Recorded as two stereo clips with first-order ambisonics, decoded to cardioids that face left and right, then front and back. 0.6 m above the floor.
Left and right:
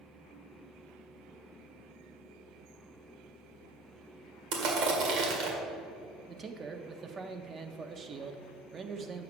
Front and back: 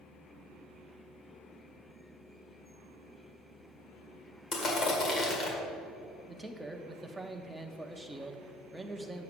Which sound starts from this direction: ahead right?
Crushing, at 4.5 s.